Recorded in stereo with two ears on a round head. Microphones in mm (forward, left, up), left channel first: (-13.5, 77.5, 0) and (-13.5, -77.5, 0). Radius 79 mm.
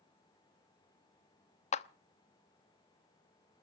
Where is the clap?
40° left (ahead or behind), 0.9 m.